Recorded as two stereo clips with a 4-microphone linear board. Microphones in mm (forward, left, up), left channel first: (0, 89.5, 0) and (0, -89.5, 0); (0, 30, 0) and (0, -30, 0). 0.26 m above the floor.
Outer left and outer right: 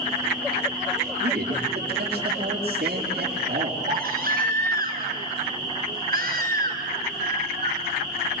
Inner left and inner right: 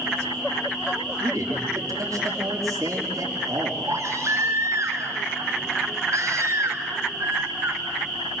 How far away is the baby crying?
About 3 m.